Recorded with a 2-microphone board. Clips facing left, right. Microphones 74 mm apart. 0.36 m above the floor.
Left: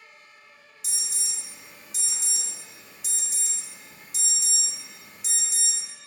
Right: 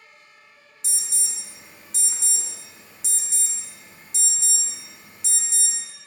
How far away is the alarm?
About 0.6 m.